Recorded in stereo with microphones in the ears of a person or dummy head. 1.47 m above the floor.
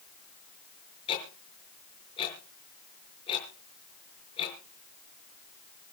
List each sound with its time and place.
1.1 s ticking: 25° left (ahead or behind), 5.5 m